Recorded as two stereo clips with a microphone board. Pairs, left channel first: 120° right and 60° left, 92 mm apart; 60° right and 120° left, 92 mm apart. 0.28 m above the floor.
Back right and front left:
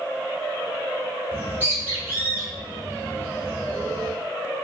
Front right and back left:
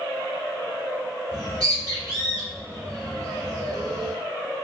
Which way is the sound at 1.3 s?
110° left.